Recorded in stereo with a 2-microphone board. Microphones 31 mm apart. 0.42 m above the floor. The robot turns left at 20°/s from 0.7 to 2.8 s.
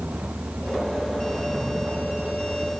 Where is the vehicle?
45° right; by 2.8 s 90° right.